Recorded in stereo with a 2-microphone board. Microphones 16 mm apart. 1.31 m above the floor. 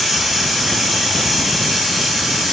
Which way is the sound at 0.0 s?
50° right (ahead or behind).